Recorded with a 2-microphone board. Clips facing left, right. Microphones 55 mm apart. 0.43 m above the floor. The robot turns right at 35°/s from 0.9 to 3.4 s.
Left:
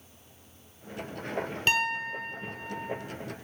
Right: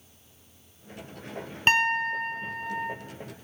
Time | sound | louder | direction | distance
1.7 | a piano | right 6 dB | 140° right | 0.9 m